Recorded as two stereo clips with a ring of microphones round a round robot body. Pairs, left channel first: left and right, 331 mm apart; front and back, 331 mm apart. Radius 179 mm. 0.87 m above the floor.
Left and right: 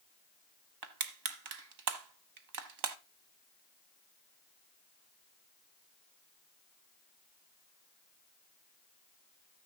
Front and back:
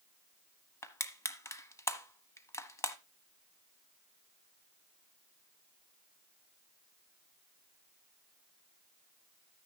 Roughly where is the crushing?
Right.